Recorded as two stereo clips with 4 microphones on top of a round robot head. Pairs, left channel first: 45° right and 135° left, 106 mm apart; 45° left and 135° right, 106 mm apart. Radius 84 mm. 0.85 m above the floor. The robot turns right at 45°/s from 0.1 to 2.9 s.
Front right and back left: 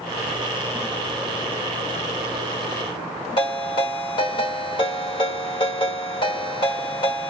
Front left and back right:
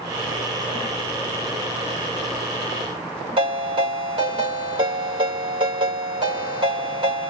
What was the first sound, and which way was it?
A ringtone, 90° right.